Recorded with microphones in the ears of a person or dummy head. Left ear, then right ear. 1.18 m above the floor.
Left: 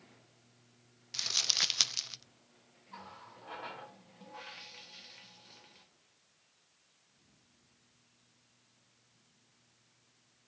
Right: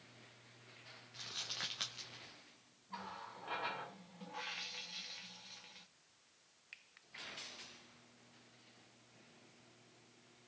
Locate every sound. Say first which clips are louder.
1.1 s crumpling: left 14 dB; 85° left, 0.5 m
2.9 s a running tap: right 2 dB; 10° right (ahead or behind), 1.1 m